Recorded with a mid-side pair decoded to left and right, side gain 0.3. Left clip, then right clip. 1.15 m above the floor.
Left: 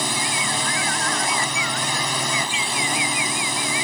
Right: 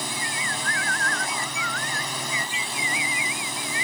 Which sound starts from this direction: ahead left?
A drone, at 0.0 s.